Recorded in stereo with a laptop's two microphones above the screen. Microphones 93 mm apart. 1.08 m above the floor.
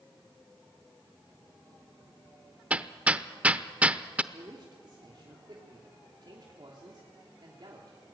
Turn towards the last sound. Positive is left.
turn(degrees=-50)  # may be behind; listen again after turning